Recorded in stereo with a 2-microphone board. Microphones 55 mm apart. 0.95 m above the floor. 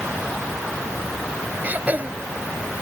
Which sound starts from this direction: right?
Throat clearing, at 1.6 s.